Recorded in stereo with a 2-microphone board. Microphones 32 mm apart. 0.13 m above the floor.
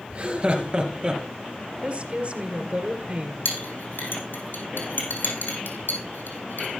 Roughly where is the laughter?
Right.